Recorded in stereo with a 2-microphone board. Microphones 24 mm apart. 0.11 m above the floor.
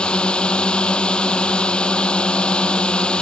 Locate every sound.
0.0 s a drone: 45° left (ahead or behind)